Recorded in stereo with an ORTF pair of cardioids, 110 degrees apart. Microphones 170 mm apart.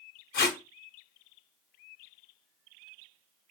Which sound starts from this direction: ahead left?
Tape being pulled, at 0.3 s.